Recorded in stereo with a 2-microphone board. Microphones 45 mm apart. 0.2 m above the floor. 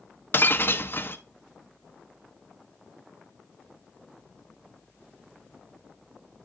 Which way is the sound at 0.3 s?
50° left (ahead or behind).